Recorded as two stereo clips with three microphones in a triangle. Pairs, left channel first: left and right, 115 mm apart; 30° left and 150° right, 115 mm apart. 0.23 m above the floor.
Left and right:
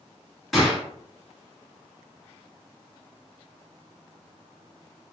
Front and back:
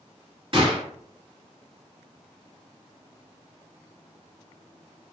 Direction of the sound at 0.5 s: Straight behind.